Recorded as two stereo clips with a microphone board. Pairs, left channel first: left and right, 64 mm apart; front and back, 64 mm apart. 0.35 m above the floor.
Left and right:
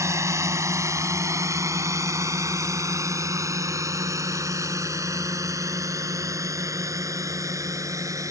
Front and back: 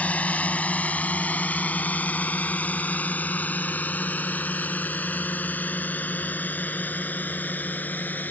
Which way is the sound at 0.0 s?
65° right.